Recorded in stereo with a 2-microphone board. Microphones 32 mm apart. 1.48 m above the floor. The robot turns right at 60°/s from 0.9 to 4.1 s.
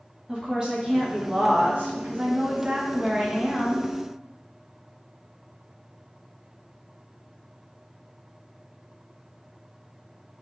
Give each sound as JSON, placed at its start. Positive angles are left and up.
{"t": 0.3, "sound": "a woman speaking", "azimuth_deg": -155, "distance_m": 1.0}